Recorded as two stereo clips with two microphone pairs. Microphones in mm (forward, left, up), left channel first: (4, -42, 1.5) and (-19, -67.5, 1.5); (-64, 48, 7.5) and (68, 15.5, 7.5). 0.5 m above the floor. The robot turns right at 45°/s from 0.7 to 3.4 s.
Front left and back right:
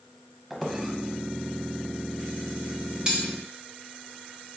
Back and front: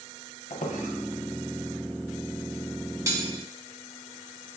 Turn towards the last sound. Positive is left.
turn(degrees=-60)